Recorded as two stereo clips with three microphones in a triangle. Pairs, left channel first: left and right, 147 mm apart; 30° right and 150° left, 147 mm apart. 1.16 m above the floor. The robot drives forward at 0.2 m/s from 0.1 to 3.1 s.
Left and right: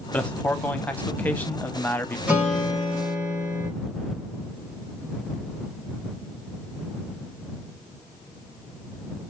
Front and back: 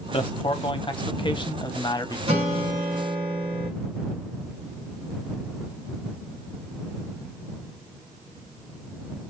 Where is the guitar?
170° right, 1.8 m.